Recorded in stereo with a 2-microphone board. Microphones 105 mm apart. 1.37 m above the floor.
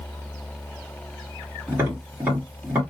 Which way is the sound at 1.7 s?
20° right (ahead or behind).